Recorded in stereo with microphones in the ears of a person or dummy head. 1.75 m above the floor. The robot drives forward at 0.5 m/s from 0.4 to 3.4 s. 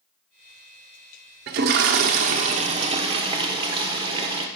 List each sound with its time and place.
1.5 s a toilet flushing: 45° right (ahead or behind), 0.7 m; by 4.5 s 25° right (ahead or behind), 1.2 m